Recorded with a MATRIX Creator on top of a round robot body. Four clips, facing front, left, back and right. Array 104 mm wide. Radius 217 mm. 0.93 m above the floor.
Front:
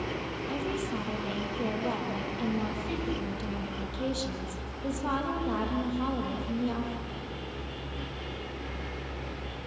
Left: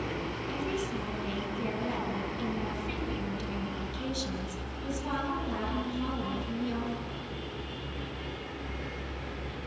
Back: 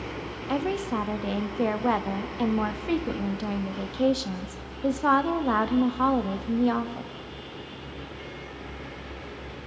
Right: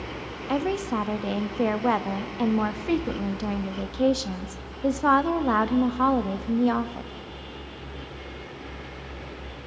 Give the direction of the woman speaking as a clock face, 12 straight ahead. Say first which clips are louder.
Right 10 dB, back 7 dB; 4 o'clock.